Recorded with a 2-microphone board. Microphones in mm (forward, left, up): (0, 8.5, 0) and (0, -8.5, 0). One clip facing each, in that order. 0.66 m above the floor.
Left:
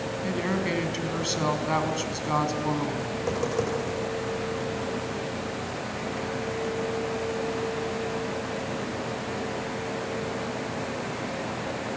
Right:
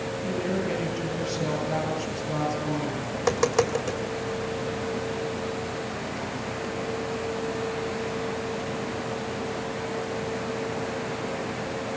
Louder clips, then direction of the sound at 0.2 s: Left 1 dB; 80° left.